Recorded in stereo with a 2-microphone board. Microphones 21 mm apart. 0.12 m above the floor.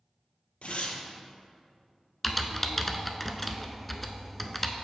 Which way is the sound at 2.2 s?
5° left (ahead or behind).